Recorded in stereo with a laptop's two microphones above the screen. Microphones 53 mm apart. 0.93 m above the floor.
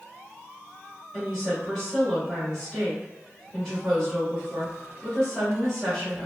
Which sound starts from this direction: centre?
A woman speaking, at 1.1 s.